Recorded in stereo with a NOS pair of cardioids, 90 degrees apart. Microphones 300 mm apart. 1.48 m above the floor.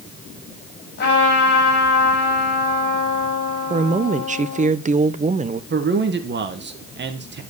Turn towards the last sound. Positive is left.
turn(degrees=-35)